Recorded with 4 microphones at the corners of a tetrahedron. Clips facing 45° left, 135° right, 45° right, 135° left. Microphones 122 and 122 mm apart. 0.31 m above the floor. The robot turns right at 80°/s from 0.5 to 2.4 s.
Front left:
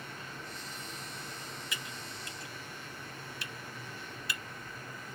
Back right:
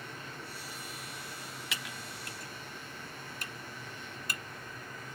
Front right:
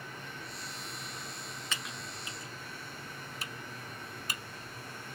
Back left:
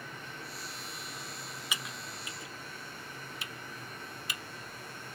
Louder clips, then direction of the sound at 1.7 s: Back right 1 dB, back left 1 dB; 150° right.